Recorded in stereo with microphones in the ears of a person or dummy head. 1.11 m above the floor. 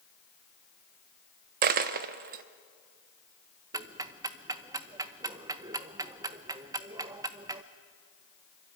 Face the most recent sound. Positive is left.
turn(degrees=-20)  # may be behind; listen again after turning